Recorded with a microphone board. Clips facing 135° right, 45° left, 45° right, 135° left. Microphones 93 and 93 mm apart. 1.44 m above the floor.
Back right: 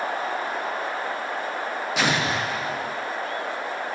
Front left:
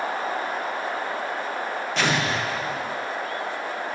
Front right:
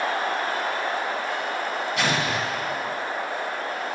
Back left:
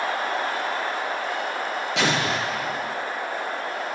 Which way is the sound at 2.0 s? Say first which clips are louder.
Even, back left 2 dB; 145° left.